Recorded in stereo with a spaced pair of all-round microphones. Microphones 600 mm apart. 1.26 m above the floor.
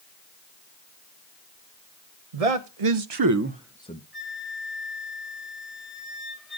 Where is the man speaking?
75° right (ahead or behind), 1.0 m; by 4.0 s 20° left (ahead or behind), 0.7 m.